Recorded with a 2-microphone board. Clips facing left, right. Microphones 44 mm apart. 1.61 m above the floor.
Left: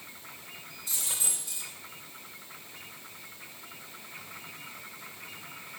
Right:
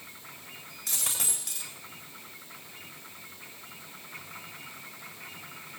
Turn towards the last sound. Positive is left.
turn(degrees=-80)